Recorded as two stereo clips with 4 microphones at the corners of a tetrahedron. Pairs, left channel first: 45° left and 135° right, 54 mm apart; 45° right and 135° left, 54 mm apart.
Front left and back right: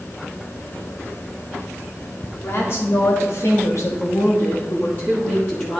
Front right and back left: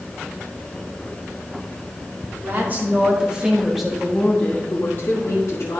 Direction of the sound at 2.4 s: 85° left.